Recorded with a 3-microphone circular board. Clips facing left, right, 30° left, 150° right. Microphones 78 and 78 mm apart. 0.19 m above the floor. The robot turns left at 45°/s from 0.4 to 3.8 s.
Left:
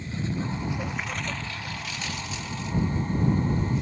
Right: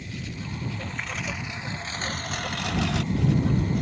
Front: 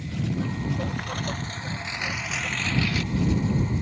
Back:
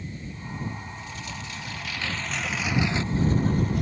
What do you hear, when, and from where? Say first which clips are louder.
0.0 s a lawn mower: left 6 dB, front 9 dB; 30° left; by 3.8 s 120° right